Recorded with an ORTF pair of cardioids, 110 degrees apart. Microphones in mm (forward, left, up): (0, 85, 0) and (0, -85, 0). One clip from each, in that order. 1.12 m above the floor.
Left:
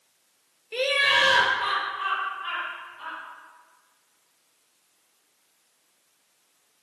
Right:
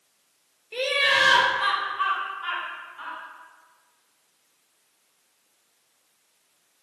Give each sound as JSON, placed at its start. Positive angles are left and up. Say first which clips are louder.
{"t": 0.7, "sound": "laughter", "louder": "even", "azimuth_deg": 15, "distance_m": 0.9}